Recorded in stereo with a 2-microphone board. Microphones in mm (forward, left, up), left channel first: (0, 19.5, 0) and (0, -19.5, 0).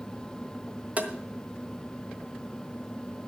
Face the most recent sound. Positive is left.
turn(degrees=-40)  # may be behind; listen again after turning